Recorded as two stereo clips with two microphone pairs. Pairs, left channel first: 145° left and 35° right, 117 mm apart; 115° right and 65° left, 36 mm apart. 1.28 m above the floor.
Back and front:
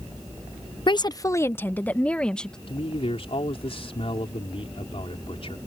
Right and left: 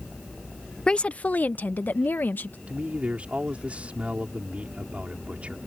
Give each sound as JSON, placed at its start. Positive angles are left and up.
{"t": 0.9, "sound": "a woman speaking", "azimuth_deg": 180}
{"t": 2.7, "sound": "a man speaking", "azimuth_deg": 110}